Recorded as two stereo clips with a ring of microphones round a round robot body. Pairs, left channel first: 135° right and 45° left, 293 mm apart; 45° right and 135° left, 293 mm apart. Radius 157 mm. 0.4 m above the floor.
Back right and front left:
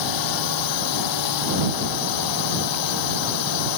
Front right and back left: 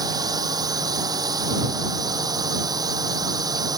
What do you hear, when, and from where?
0.0 s a drone: 145° right